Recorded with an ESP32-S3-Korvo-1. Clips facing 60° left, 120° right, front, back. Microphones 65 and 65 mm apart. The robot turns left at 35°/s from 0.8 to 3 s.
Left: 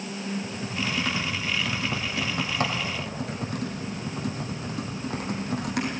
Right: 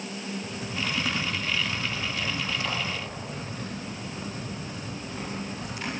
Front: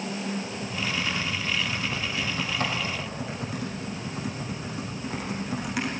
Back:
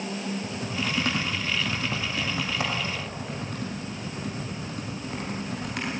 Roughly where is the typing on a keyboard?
Behind.